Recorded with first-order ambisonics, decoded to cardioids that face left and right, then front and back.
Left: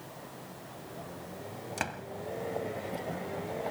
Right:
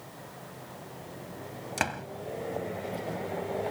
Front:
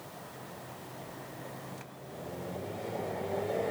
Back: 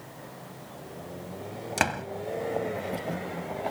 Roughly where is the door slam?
Behind.